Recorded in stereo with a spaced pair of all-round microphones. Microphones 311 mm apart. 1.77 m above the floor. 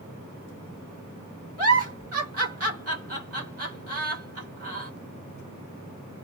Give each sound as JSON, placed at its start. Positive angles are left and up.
{"t": 1.6, "sound": "a giggle", "side_deg": -50, "distance_m": 1.5}